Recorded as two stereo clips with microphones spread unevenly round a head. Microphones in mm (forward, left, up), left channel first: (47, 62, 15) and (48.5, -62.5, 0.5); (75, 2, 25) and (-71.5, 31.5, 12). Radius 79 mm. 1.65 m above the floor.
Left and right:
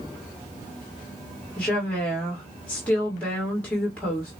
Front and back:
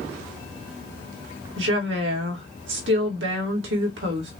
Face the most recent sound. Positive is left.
turn(degrees=170)